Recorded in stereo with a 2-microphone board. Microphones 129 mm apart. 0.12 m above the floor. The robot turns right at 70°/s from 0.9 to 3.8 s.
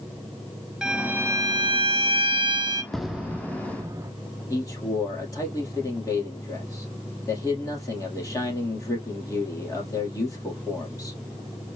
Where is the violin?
175° right, 0.7 m; by 2.8 s 40° right, 0.7 m.